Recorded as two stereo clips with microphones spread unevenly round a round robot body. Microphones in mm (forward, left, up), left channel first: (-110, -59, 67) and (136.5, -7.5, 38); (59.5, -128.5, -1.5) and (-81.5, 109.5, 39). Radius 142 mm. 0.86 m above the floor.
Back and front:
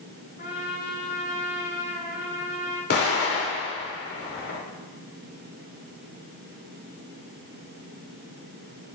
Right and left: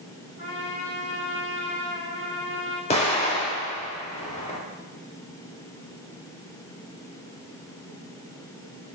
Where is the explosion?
130° right, 3 m.